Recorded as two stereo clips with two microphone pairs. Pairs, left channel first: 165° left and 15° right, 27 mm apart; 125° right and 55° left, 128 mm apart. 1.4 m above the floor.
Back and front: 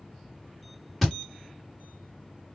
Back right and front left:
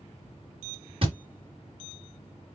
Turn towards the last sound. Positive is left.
turn(degrees=75)